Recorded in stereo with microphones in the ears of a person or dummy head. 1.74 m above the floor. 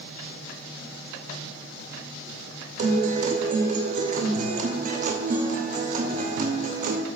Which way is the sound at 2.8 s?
45° right (ahead or behind).